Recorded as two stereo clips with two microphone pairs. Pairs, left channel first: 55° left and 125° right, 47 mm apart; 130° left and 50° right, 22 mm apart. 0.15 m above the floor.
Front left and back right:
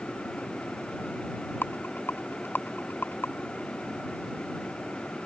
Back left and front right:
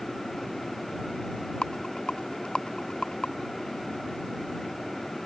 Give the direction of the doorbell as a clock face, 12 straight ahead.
I don't hear a doorbell.